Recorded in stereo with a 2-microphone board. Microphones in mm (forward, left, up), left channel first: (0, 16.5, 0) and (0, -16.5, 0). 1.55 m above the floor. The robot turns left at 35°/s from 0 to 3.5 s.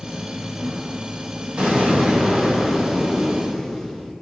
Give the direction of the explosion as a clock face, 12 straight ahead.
4 o'clock.